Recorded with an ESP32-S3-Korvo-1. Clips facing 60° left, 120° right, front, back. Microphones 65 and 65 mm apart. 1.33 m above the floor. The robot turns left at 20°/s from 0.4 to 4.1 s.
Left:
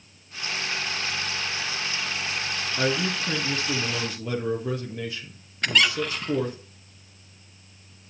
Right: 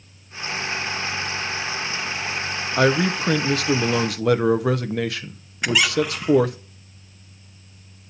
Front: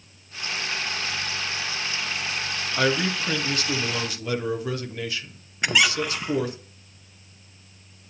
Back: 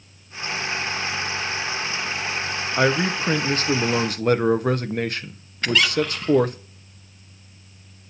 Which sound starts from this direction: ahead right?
A squeak, at 5.6 s.